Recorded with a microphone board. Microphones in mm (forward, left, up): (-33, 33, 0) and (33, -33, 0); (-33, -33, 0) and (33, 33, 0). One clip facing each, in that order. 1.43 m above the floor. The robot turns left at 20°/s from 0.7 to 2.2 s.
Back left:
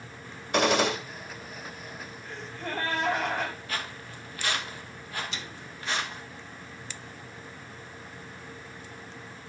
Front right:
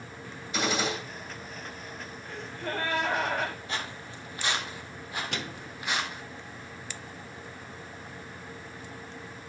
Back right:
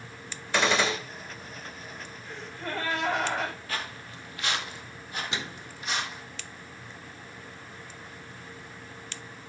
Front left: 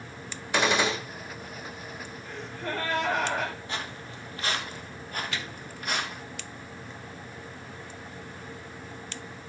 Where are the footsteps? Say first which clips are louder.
Even, even; straight ahead, 1.7 m; by 6.2 s 30° left, 2.5 m.